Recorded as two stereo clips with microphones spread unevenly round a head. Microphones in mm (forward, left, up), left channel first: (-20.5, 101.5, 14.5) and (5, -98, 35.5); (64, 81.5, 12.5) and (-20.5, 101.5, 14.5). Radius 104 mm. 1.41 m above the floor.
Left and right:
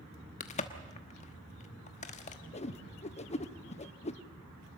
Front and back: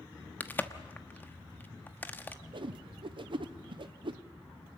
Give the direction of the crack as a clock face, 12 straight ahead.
10 o'clock.